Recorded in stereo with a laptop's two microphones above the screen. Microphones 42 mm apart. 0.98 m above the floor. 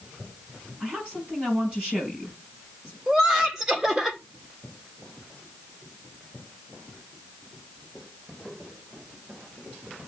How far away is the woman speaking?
About 7.5 m.